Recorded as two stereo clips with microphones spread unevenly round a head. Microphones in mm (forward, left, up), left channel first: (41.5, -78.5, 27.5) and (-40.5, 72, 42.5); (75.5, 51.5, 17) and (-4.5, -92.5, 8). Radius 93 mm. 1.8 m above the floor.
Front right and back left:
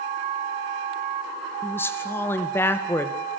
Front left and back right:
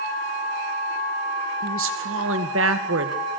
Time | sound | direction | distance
1.6 | a woman speaking | 140° right | 2 m